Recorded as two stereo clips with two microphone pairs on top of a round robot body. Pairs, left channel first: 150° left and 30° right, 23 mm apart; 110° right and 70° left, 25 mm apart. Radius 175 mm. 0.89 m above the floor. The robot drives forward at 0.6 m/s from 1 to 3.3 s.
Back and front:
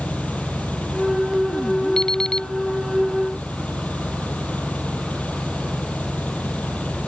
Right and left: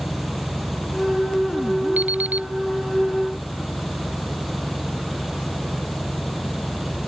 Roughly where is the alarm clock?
Left.